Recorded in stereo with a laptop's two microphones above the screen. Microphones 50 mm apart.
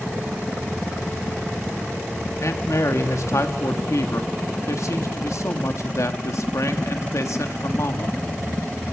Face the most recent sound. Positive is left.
turn(degrees=70)  # may be behind; listen again after turning